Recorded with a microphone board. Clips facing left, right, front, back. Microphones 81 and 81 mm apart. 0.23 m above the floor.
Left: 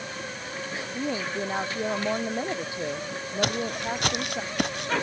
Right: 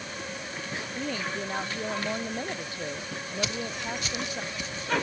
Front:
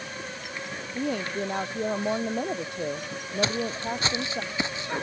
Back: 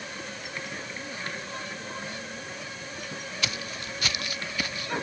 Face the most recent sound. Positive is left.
turn(degrees=70)